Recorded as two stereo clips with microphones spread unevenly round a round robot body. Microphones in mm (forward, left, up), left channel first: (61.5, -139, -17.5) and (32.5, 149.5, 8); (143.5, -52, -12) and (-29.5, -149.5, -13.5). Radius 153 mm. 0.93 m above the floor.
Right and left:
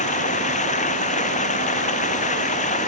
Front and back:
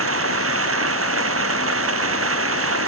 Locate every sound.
0.0 s running water: 155° right